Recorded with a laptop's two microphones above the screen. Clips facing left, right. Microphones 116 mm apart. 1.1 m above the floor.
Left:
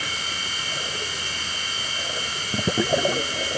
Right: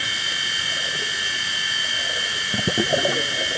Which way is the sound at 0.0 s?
45° left (ahead or behind).